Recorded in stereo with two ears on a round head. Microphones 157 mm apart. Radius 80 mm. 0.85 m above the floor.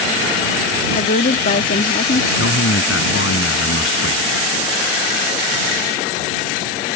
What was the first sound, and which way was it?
A woman speaking, 50° left (ahead or behind).